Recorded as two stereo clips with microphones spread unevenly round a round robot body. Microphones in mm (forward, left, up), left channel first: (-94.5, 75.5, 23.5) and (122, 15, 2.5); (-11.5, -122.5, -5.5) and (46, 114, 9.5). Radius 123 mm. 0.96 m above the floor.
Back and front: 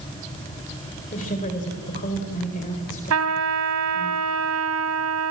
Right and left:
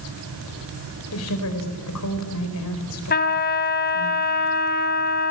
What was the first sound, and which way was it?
A woman speaking, 135° right.